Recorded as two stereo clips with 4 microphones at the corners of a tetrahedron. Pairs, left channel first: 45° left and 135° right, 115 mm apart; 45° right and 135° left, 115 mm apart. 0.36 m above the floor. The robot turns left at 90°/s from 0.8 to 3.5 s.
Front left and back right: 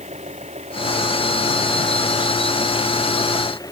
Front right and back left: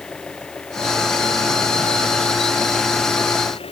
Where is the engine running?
130° right; by 3.7 s 10° right.